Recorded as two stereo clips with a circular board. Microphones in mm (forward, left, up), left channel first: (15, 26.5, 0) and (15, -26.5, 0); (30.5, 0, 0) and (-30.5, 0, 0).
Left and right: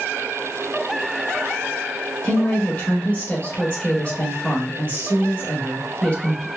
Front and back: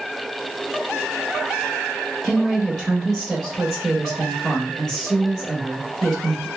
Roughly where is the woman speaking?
Left.